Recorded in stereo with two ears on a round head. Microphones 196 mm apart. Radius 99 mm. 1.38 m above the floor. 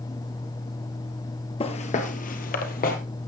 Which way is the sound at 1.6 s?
25° left (ahead or behind).